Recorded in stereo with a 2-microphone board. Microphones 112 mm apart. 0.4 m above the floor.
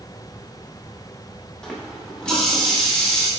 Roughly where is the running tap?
Centre.